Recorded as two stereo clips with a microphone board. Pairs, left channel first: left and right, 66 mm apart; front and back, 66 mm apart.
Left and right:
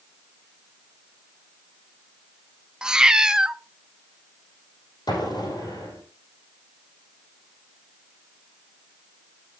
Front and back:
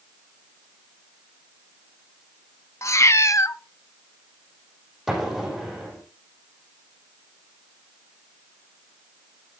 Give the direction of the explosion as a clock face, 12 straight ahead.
9 o'clock.